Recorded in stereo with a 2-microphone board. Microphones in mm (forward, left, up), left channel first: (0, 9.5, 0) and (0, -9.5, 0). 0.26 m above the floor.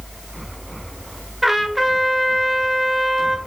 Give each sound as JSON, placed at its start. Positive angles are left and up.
{"t": 1.4, "sound": "a trumpet", "side_deg": -10, "distance_m": 0.7}